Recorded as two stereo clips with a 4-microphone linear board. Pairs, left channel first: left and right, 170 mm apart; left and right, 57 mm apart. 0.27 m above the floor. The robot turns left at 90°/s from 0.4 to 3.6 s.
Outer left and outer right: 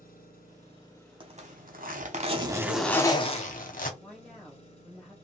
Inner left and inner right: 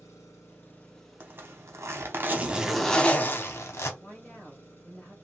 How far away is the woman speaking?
About 1.2 m.